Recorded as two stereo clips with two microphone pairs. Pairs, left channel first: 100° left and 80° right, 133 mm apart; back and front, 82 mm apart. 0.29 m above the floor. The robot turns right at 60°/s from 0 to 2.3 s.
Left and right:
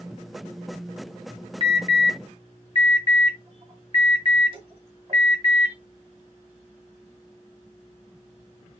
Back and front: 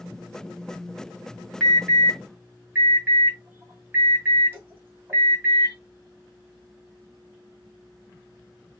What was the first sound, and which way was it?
An alarm, 95° right.